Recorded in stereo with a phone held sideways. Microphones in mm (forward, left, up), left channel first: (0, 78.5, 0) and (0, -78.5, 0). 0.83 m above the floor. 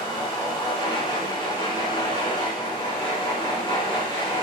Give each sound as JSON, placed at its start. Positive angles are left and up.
{"t": 0.0, "sound": "a machine running", "side_deg": 25, "distance_m": 3.5}